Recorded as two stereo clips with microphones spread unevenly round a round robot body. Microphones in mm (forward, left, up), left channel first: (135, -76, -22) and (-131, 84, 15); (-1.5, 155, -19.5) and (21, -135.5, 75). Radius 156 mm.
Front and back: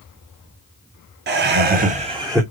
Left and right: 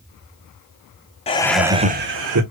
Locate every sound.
1.3 s laughter: 100° left, 0.9 m; by 2.4 s 125° right, 1.1 m